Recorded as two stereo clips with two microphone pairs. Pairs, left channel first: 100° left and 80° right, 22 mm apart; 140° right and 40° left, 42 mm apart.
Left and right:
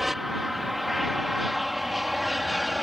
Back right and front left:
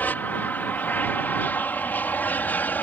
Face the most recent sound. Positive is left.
turn(degrees=-165)